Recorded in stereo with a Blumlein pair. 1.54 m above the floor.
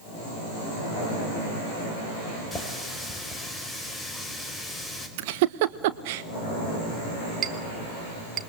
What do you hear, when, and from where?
2.5 s a running tap: 15° left, 4.5 m
5.2 s a giggle: 50° right, 1.4 m
7.4 s a clink: 30° right, 1.9 m